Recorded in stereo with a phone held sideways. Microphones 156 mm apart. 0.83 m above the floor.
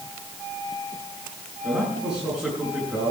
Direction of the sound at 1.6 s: 5° right (ahead or behind).